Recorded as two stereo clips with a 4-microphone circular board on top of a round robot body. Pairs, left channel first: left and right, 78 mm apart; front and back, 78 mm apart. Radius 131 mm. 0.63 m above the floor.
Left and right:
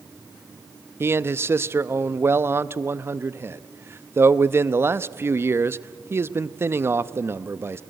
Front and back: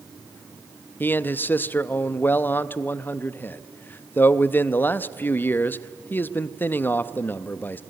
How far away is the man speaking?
About 0.8 m.